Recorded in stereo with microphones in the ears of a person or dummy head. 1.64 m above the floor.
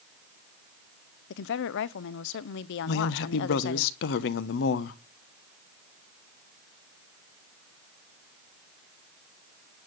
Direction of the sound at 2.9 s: 70° left (ahead or behind).